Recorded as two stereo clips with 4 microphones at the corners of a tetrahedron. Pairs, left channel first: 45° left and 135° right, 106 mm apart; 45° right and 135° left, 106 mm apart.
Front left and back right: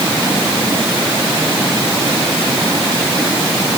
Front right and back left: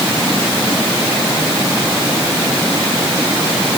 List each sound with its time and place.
Only background noise.